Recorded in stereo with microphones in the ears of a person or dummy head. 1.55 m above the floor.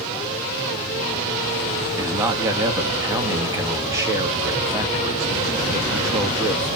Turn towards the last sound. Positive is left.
turn(degrees=-20)  # may be behind; listen again after turning